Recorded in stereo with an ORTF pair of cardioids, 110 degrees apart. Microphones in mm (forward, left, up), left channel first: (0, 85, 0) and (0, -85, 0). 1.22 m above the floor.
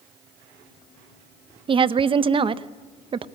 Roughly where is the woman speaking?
Ahead right.